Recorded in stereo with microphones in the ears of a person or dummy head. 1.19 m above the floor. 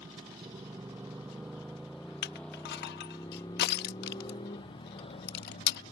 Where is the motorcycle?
20° right (ahead or behind); by 5.9 s 35° left (ahead or behind).